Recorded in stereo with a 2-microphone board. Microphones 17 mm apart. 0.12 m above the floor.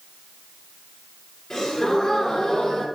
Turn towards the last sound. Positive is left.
turn(degrees=35)  # may be behind; listen again after turning